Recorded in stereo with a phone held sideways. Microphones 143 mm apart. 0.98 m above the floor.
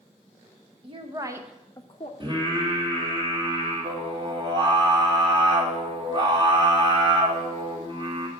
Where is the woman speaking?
40° right (ahead or behind), 1.2 m; by 2.1 s 45° left (ahead or behind), 0.8 m.